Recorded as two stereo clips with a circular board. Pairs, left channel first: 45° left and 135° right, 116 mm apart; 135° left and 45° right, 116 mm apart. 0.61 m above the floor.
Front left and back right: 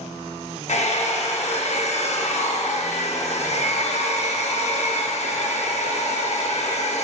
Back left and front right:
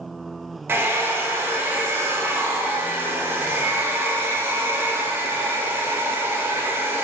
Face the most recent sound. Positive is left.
turn(degrees=25)